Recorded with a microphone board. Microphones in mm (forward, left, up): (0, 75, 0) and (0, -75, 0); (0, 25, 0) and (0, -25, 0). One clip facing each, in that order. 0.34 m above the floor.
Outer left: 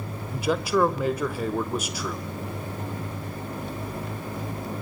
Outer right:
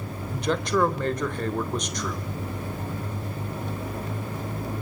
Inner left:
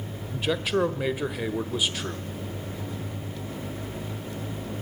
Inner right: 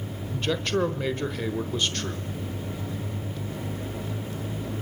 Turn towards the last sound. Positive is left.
turn(degrees=5)  # may be behind; listen again after turning